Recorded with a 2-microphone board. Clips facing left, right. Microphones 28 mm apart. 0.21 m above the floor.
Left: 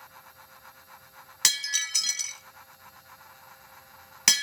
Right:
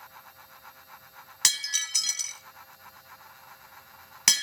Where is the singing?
No singing in this recording.